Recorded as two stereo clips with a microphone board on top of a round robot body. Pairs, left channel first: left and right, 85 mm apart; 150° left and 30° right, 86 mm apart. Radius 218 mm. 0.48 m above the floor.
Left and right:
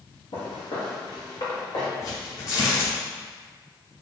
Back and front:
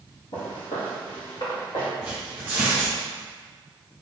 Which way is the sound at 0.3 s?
110° left.